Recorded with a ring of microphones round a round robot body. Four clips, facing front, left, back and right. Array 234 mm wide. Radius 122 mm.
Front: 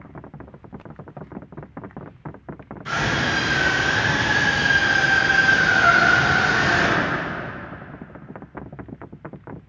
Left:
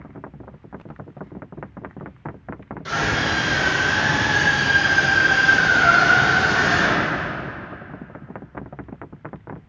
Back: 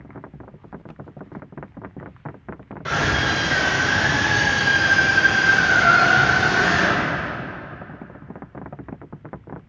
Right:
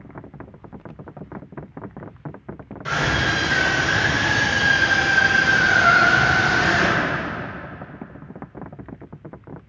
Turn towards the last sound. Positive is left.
turn(degrees=170)